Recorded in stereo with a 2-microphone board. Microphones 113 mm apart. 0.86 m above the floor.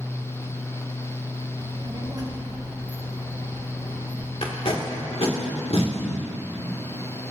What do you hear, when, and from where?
1.6 s a child speaking: 45° right (ahead or behind), 2.5 m; by 4.3 s 15° right (ahead or behind), 4 m
4.4 s tape being pulled: 60° left (ahead or behind), 1.8 m